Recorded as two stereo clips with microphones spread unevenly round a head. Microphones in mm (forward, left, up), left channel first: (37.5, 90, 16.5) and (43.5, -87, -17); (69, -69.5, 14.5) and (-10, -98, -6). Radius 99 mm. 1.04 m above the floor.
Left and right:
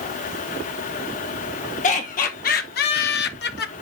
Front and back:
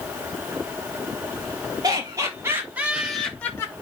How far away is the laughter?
About 1.7 m.